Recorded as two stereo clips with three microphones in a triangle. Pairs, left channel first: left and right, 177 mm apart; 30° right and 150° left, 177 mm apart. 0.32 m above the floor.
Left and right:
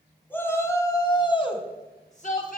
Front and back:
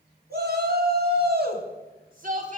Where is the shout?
165° left, 2 m; by 2.6 s 115° left, 1.7 m.